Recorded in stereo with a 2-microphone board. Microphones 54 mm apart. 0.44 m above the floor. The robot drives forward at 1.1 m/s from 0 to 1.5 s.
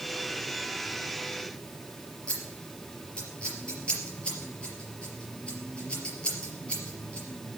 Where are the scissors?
20° left (ahead or behind), 4 m.